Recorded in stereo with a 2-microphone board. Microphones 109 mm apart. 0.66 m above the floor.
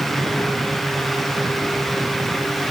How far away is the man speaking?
No man speaking in this recording.